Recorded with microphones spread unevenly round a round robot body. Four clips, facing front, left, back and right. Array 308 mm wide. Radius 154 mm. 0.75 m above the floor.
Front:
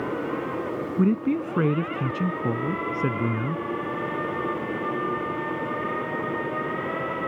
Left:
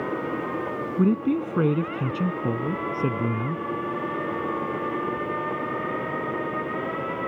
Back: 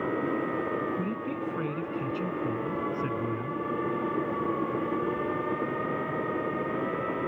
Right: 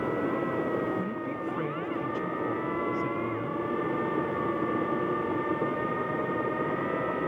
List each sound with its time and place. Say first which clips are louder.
1.0 s a man speaking: left 10 dB, front 9 dB; 50° left; by 3.6 s 40° left